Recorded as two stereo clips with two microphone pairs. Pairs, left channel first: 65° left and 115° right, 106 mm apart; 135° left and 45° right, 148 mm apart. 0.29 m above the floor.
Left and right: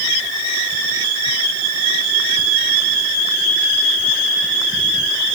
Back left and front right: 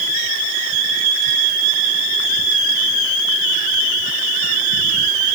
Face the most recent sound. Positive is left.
No sound to turn to.